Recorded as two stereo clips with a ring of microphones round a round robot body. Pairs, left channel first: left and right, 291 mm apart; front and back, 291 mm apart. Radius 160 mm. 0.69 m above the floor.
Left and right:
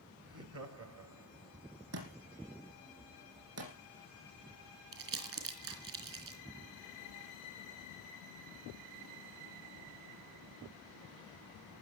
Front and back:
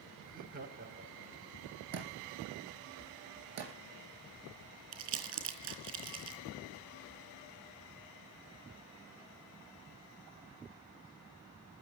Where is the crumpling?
135° right, 3.5 m.